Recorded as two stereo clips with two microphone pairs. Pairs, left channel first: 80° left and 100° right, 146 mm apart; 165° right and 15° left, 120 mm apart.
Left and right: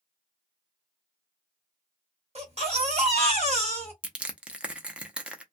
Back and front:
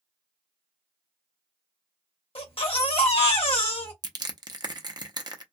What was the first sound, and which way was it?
A baby crying, 135° right.